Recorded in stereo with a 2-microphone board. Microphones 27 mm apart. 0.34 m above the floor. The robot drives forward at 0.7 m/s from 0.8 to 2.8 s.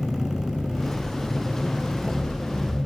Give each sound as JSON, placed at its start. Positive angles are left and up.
{"t": 0.0, "sound": "an engine running", "side_deg": 50, "distance_m": 6.0}